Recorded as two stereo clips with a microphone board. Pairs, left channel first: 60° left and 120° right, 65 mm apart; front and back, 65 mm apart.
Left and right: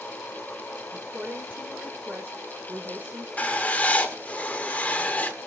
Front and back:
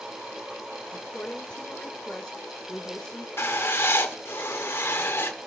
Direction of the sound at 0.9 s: 65° right.